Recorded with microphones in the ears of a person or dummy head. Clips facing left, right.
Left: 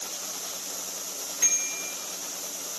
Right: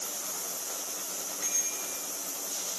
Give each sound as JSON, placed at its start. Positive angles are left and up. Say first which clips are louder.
{"t": 1.4, "sound": "a bicycle bell", "louder": "left 1 dB", "side_deg": 70, "distance_m": 4.0}